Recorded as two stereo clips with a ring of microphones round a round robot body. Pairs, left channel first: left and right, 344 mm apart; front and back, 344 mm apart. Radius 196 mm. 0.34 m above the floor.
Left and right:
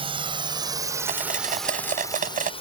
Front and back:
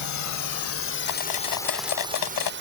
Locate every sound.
0.0 s a drone: 20° right; by 2.6 s 155° left
1.1 s cutlery clinking: 25° right